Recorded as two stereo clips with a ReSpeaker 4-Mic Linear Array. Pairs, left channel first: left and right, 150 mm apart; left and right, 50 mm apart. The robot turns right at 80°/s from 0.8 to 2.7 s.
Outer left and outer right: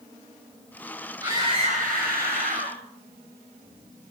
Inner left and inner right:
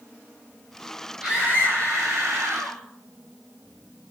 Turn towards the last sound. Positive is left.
turn(degrees=-40)